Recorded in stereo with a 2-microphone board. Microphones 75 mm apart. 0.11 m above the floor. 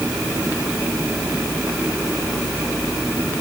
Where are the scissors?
No scissors in this recording.